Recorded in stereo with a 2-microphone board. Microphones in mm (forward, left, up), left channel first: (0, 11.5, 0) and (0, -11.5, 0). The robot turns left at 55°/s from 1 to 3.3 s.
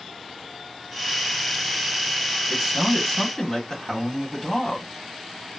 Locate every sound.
2.5 s a man speaking: 150° right, 1.7 m; by 4.9 s 165° left, 1.7 m